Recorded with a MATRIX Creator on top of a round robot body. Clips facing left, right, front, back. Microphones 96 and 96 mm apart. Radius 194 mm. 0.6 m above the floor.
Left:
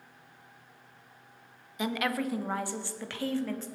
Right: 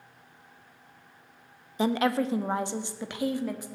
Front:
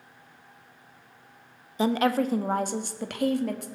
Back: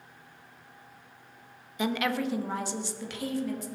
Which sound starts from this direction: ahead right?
A woman speaking, at 1.8 s.